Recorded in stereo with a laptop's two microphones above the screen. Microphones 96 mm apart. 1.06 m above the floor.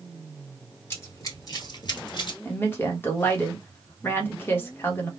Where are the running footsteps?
25° left (ahead or behind), 1.3 m; by 2.4 s 50° left (ahead or behind), 1.5 m.